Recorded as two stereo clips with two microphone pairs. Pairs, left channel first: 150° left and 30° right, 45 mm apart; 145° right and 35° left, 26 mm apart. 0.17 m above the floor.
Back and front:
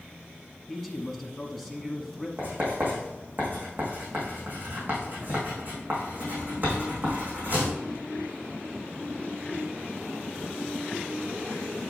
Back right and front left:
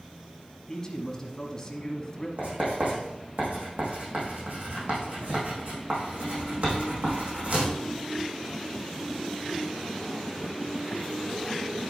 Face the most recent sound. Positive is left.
turn(degrees=20)